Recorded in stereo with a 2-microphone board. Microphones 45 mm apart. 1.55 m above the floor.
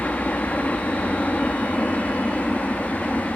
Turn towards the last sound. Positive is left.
turn(degrees=35)  # may be behind; listen again after turning